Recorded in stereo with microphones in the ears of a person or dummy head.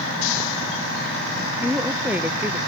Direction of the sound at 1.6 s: 10° right (ahead or behind).